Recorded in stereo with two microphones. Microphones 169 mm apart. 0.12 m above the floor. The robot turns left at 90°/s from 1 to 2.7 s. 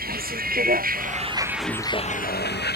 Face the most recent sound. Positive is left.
turn(degrees=80)